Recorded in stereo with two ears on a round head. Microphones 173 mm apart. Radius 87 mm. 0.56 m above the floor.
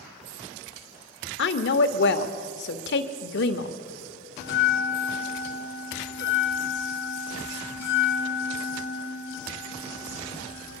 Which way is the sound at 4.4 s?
50° left (ahead or behind).